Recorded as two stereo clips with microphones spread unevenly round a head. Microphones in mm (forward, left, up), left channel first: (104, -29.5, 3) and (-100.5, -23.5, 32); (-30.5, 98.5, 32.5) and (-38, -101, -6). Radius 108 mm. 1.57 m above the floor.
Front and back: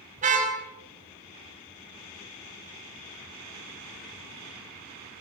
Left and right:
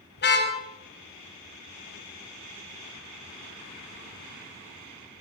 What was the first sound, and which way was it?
A car horn, 120° left.